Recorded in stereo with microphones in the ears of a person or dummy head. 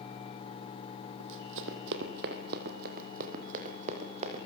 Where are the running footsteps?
65° right (ahead or behind), 4 m; by 4.5 s 35° right (ahead or behind), 5 m.